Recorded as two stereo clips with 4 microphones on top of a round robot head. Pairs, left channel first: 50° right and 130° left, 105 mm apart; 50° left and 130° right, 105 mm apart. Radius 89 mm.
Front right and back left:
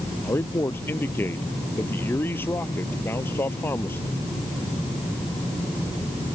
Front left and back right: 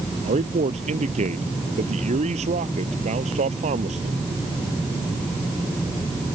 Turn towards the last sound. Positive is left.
turn(degrees=-120)